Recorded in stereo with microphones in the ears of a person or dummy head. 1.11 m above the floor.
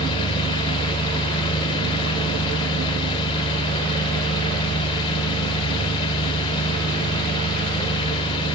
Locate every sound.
0.0 s an engine running: 25° left (ahead or behind), 2.5 m